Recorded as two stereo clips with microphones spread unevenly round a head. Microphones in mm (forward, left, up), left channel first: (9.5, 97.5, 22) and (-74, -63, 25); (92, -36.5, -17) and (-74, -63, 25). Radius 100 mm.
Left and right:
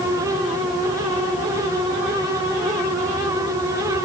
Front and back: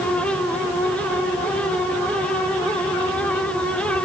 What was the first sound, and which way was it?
Only background noise.